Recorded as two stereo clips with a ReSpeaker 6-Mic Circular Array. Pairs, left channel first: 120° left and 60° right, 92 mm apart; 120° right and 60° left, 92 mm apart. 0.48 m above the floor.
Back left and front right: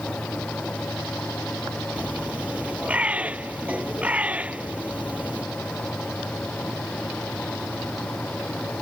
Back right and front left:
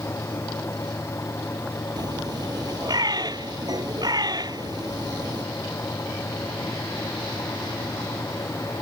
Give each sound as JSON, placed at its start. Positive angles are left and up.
{"t": 2.0, "sound": "a bird", "azimuth_deg": 15}